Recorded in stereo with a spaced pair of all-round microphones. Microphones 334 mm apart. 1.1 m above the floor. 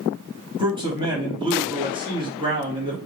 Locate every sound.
0.6 s a man speaking: 15° right (ahead or behind), 3 m